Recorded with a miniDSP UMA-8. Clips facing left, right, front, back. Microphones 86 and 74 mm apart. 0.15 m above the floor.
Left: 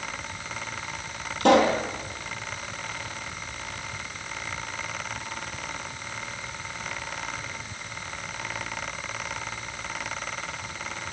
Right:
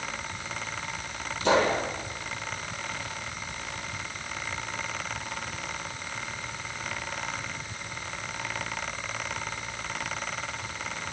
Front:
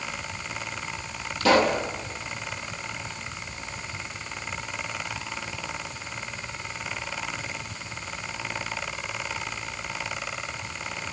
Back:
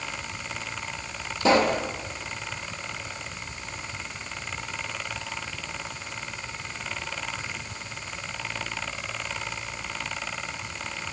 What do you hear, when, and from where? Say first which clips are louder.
1.4 s a pop: left 5 dB, front 1 dB; 115° left, 4 m